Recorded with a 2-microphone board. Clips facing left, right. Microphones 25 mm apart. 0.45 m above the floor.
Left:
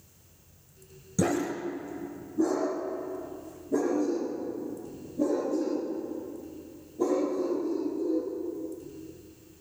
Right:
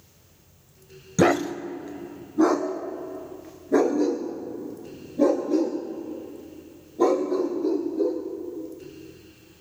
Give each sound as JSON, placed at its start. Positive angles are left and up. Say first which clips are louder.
{"t": 1.2, "sound": "a dog barking", "louder": "right 7 dB", "side_deg": -50, "distance_m": 0.8}